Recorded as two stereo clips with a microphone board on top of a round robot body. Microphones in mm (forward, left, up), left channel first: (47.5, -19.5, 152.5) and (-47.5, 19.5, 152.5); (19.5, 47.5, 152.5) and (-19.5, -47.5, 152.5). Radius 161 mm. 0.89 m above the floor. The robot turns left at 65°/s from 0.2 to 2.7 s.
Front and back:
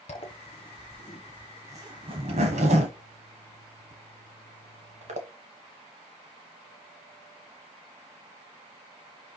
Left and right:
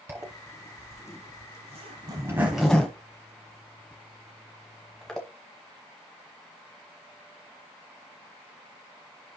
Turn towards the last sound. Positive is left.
turn(degrees=155)